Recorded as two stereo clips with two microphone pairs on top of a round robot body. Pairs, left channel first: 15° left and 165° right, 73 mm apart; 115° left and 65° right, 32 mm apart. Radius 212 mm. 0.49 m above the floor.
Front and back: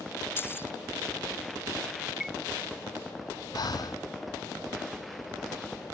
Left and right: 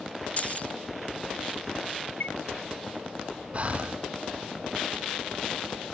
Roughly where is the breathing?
Ahead.